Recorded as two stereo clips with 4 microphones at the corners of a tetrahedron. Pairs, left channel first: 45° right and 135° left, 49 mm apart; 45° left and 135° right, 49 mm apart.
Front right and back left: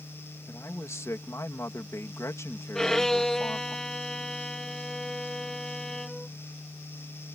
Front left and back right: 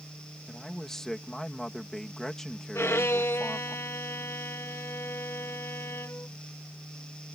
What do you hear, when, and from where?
0.5 s a man speaking: 35° right
2.8 s a violin: 35° left